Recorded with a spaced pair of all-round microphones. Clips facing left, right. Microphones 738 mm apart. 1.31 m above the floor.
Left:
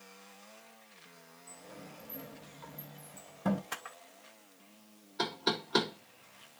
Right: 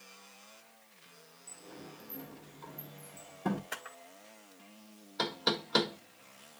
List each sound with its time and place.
1.5 s a sliding door: 15° left (ahead or behind), 1.1 m
3.7 s a camera shutter: 35° left (ahead or behind), 1.4 m
5.2 s knocking: 15° right (ahead or behind), 1.3 m